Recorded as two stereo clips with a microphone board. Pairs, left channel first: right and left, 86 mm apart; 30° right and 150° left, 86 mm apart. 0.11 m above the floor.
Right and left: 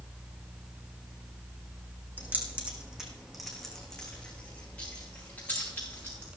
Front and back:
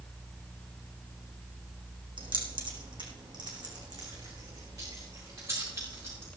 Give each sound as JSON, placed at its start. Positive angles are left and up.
{"t": 2.2, "sound": "keys jangling", "azimuth_deg": 155, "distance_m": 3.5}